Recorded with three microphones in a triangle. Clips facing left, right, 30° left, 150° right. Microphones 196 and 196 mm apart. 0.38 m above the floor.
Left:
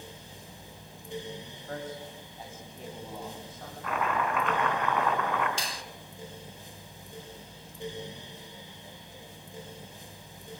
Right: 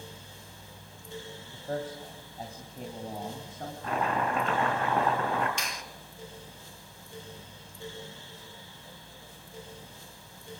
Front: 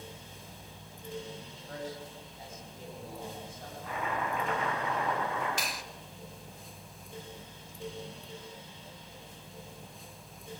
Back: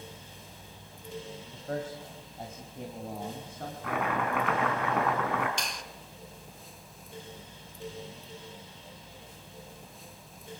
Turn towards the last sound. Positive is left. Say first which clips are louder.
# left 1 dB, even
turn(degrees=110)